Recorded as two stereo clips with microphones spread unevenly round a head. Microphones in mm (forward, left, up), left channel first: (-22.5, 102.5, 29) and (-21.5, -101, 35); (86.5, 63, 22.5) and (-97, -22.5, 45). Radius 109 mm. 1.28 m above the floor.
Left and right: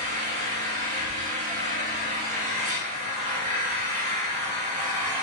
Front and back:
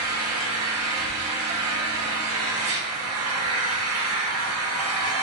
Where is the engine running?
145° right, 1.2 m.